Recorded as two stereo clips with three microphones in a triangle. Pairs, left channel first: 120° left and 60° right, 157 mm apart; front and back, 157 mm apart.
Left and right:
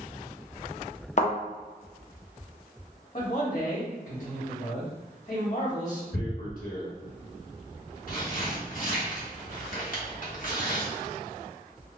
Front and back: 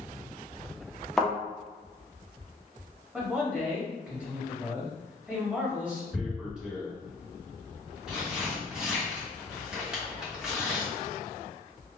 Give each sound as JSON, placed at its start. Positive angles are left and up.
{"t": 1.2, "sound": "a thud", "azimuth_deg": 90, "distance_m": 0.7}
{"t": 3.1, "sound": "a man speaking", "azimuth_deg": 100, "distance_m": 1.6}
{"t": 6.1, "sound": "tearing paper", "azimuth_deg": 95, "distance_m": 1.1}